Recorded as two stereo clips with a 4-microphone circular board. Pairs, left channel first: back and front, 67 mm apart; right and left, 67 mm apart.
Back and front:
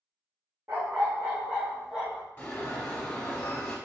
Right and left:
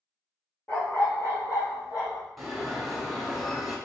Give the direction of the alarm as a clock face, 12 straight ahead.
6 o'clock.